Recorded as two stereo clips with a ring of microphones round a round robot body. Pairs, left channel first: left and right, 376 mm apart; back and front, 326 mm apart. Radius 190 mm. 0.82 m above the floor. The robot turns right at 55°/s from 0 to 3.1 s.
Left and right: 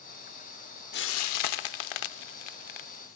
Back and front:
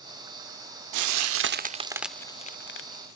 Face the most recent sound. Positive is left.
turn(degrees=145)